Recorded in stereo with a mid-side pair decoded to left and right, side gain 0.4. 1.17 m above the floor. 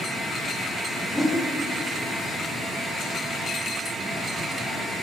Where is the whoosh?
5° left, 1.3 m.